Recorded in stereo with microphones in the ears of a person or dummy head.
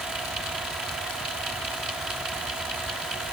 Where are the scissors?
I don't hear scissors.